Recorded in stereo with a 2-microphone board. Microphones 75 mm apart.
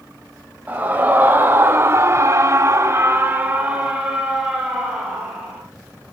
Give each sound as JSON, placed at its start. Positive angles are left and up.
{"t": 0.7, "sound": "a scream", "side_deg": -20, "distance_m": 2.5}